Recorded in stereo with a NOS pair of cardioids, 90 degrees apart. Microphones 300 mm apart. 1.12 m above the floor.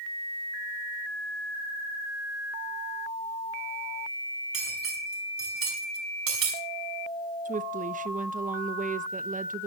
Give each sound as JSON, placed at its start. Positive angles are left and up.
{"t": 4.5, "sound": "cutlery clinking", "azimuth_deg": -50, "distance_m": 6.0}
{"t": 7.5, "sound": "a woman speaking", "azimuth_deg": -30, "distance_m": 1.0}